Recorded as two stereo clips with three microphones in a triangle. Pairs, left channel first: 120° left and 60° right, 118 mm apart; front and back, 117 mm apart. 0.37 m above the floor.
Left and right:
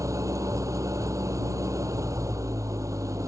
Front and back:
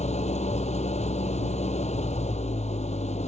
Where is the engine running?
Straight ahead.